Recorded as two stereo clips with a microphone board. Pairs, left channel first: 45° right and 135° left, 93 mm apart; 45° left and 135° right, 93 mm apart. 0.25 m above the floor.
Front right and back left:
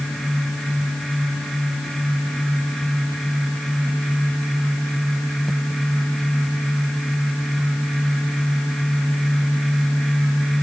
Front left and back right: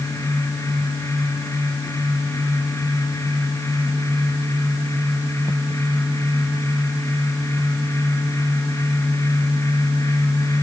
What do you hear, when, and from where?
Only background noise.